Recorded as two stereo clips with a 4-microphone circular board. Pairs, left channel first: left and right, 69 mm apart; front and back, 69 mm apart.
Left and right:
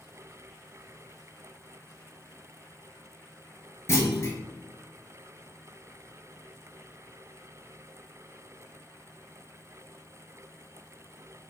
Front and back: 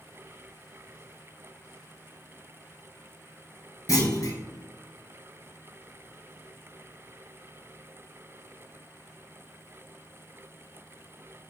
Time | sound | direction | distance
3.9 | a clunk | 35° left | 0.9 m